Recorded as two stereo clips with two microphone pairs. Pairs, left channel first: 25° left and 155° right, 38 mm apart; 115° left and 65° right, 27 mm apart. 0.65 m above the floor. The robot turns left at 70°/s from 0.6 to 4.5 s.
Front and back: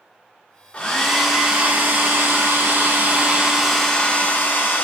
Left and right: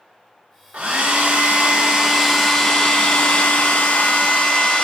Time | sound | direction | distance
0.7 | a hair dryer | 35° right | 0.9 m